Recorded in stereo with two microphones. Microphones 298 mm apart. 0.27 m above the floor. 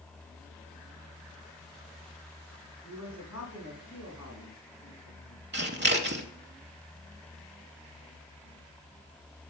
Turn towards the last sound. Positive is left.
turn(degrees=-35)  # may be behind; listen again after turning